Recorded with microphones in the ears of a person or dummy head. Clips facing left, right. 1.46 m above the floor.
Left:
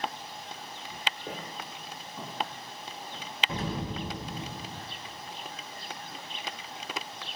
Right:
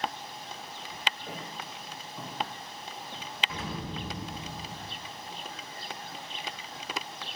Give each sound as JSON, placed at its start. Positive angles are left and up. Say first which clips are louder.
{"t": 1.3, "sound": "footsteps", "louder": "left 1 dB", "side_deg": 20, "distance_m": 2.0}
{"t": 3.5, "sound": "an explosion", "louder": "left 7 dB", "side_deg": 30, "distance_m": 0.7}